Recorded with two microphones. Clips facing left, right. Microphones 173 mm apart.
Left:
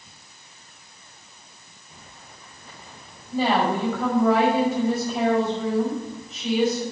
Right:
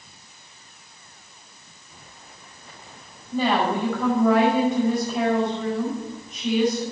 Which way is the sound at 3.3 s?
10° left (ahead or behind).